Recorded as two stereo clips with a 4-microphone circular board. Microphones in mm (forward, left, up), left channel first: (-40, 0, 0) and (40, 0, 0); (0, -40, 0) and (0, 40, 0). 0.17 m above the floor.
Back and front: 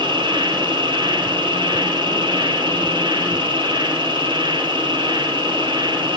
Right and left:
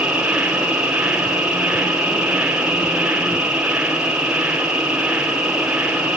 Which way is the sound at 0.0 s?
10° left.